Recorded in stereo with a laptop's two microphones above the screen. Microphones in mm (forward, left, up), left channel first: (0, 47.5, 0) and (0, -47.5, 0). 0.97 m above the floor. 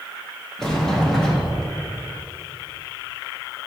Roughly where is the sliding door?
Centre.